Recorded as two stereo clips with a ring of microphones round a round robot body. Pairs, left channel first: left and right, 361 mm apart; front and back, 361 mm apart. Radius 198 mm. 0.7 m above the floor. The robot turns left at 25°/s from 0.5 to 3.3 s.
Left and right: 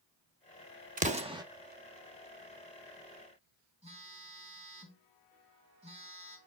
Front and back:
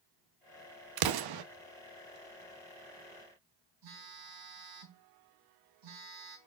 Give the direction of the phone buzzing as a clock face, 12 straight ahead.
5 o'clock.